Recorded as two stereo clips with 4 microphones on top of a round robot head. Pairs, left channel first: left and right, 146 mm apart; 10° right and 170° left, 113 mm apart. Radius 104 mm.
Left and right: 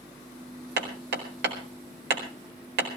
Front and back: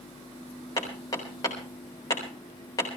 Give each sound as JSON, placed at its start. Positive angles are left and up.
{"t": 0.8, "sound": "hammering", "azimuth_deg": -80, "distance_m": 4.5}